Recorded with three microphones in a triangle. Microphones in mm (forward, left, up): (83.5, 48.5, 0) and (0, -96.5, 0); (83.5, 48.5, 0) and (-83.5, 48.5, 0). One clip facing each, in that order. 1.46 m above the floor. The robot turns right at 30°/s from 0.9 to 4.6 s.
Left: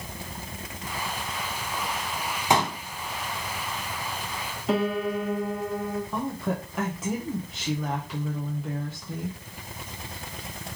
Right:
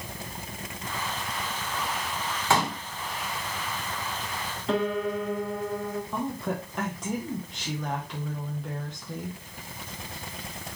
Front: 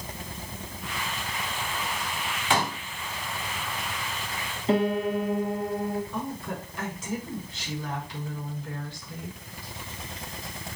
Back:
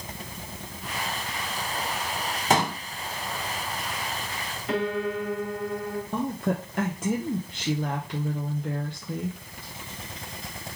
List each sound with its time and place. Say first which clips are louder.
2.5 s a pop: left 2 dB, back 3 dB; 130° left, 1.3 m; by 2.8 s 140° left, 1.3 m
4.7 s a piano: left 1 dB, front 3 dB; 15° right, 1.1 m
6.1 s a woman speaking: left 1 dB, back 6 dB; 145° left, 0.8 m